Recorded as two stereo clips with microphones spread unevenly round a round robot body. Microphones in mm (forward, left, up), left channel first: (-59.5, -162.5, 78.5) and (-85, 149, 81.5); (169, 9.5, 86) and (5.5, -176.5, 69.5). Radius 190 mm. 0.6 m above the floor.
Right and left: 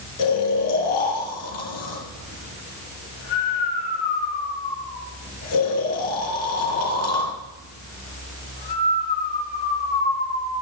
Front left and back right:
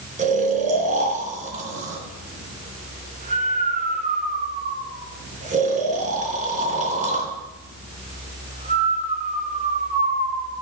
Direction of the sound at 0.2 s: 70° right.